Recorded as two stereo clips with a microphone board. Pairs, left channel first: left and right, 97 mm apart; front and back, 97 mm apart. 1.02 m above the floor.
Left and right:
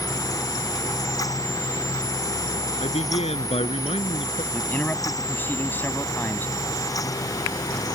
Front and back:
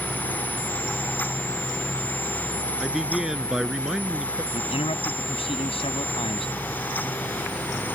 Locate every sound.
2.8 s a man speaking: 95° left
4.5 s a man speaking: 20° left